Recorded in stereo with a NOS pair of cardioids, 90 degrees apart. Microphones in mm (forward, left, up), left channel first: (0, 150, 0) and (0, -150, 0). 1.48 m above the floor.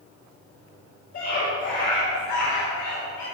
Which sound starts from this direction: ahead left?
A scream, at 1.1 s.